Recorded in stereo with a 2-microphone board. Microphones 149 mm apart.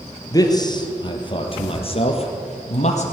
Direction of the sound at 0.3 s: 25° left (ahead or behind).